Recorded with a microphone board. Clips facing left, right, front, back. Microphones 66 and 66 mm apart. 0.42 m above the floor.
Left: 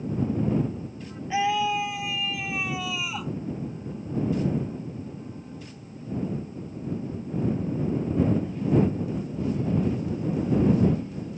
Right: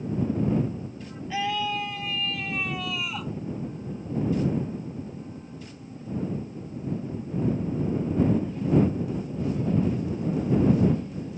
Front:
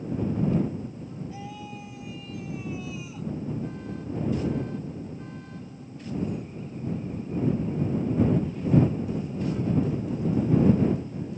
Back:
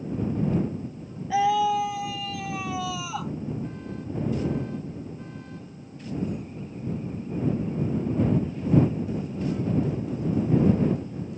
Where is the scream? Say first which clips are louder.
Left 4 dB, back 18 dB; 165° left; by 3.3 s 175° left.